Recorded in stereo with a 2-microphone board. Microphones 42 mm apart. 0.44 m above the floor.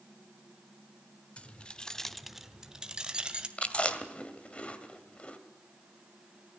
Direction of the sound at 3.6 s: 30° left (ahead or behind).